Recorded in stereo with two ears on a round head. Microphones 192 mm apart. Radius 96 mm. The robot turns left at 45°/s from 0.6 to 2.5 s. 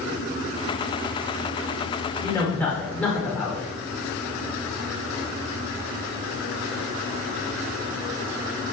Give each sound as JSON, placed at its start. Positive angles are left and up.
{"t": 2.2, "sound": "a man speaking", "side_deg": 15, "distance_m": 1.1}